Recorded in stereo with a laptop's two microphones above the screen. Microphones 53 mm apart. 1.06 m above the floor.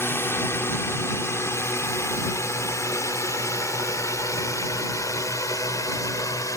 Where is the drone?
45° left (ahead or behind); by 6.6 s 75° left (ahead or behind).